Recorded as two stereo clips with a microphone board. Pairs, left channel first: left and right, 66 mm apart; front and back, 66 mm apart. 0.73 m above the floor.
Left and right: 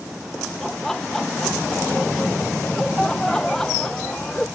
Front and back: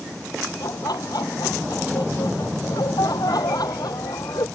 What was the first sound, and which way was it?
Laughter, 5° left.